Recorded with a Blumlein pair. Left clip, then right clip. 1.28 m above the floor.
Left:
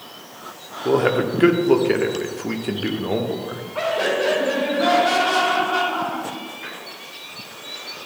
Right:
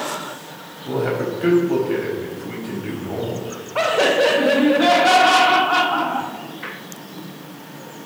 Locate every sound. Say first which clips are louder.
0.8 s a man speaking: left 4 dB; 45° left, 1.3 m
3.8 s laughter: right 5 dB; 25° right, 1.0 m